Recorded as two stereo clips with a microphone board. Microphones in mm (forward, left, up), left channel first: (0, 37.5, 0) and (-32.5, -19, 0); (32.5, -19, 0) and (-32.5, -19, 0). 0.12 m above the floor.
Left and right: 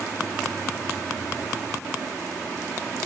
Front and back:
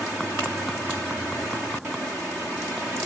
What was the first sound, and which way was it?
Only background noise.